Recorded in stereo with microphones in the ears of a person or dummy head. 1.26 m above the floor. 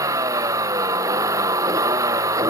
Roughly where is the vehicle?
Centre.